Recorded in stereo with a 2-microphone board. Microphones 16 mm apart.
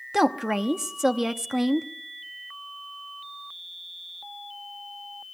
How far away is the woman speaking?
About 0.9 m.